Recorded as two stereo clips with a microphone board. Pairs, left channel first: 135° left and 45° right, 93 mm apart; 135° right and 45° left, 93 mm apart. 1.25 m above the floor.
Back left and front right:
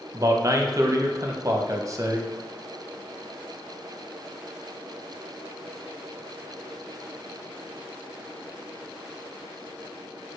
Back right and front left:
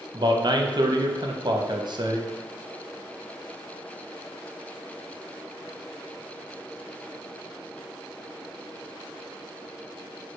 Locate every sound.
0.1 s a man speaking: 10° left, 0.6 m